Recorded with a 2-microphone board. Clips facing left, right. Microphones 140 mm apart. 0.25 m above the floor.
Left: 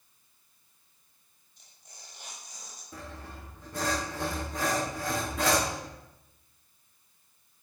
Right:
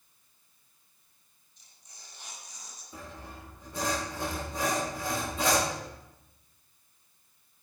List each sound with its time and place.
1.6 s tearing paper: 60° left (ahead or behind), 6 m
2.9 s sawing: 65° left (ahead or behind), 6.5 m